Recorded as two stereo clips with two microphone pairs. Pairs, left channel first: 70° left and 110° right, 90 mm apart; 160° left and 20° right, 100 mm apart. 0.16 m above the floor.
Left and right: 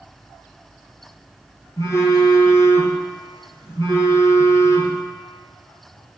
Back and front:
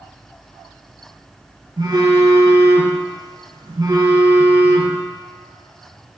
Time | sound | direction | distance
1.8 | a phone buzzing | 20° left | 1.3 m